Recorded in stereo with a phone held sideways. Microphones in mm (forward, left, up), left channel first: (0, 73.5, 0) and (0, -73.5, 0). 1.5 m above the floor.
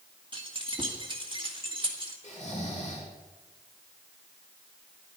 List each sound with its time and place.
0.3 s keys jangling: 35° right (ahead or behind), 2 m
2.2 s snoring: 50° left (ahead or behind), 4.5 m